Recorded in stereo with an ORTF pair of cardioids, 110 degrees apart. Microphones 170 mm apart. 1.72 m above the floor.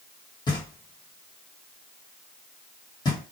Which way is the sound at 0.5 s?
30° left.